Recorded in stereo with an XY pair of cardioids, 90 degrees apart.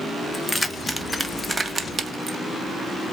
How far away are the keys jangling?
About 0.9 m.